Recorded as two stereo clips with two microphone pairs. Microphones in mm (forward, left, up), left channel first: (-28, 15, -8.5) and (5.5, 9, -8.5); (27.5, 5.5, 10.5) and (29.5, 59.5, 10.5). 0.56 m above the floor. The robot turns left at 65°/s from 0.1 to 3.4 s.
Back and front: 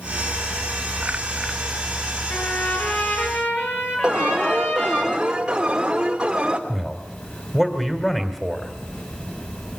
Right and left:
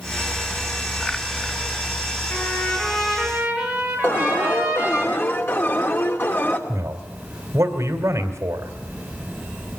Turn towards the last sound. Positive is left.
turn(degrees=95)